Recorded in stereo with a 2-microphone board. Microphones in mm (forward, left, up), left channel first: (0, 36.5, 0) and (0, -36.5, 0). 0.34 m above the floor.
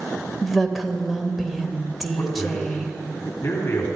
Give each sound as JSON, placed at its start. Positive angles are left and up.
{"t": 0.4, "sound": "a woman speaking", "side_deg": -5, "distance_m": 1.3}
{"t": 2.2, "sound": "a man speaking", "side_deg": 40, "distance_m": 2.5}